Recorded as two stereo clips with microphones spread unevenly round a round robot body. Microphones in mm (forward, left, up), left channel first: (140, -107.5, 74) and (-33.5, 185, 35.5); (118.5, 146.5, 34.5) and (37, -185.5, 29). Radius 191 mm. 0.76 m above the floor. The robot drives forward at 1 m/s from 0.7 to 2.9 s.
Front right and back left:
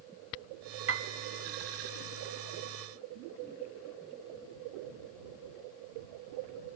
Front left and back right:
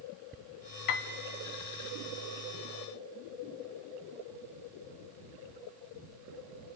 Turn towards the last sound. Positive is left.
turn(degrees=165)